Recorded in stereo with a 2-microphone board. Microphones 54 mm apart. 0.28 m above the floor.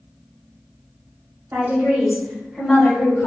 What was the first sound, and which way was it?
A woman speaking, 35° right (ahead or behind).